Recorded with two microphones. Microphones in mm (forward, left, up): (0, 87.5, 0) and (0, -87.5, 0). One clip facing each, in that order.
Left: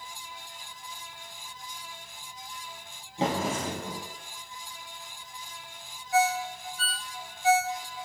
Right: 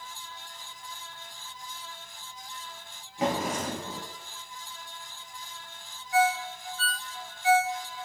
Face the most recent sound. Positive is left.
turn(degrees=40)  # may be behind; listen again after turning